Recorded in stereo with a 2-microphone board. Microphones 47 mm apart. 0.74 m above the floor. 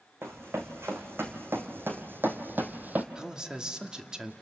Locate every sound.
0.2 s running footsteps: 65° right (ahead or behind), 3 m; by 3.0 s 40° right (ahead or behind), 1.4 m
3.1 s a man speaking: 15° right (ahead or behind), 1.5 m